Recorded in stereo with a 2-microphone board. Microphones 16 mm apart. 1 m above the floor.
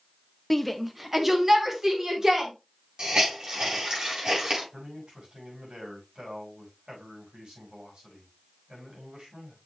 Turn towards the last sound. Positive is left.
turn(degrees=-85)